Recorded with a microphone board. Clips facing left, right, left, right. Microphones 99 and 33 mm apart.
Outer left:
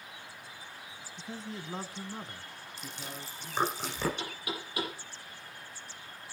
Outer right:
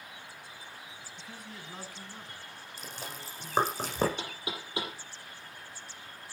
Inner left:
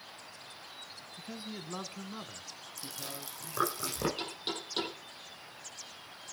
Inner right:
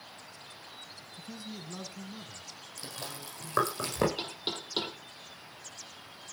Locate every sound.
1.2 s a man speaking: 25° left (ahead or behind), 1.0 m; by 3.8 s 40° left (ahead or behind), 2.5 m
2.8 s chewing: 45° right (ahead or behind), 8 m
4.2 s knocking: 25° right (ahead or behind), 5.5 m